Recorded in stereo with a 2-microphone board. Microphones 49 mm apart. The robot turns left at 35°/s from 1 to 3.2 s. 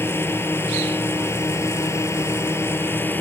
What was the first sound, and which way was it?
A drone, 120° left.